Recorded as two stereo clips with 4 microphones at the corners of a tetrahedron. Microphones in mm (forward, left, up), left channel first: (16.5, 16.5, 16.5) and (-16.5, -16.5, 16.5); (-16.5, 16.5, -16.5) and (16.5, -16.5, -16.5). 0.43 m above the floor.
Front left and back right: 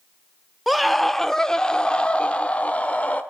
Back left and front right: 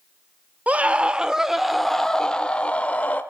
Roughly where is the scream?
Ahead right.